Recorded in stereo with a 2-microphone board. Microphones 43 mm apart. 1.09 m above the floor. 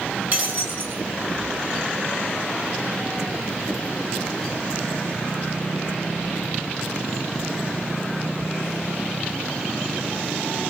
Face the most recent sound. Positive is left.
turn(degrees=-40)  # may be behind; listen again after turning